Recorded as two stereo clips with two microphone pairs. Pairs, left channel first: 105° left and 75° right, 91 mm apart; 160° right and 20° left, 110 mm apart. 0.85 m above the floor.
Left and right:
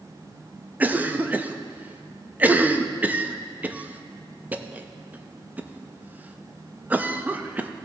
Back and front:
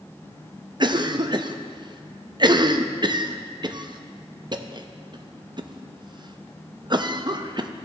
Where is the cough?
10° right, 0.6 m.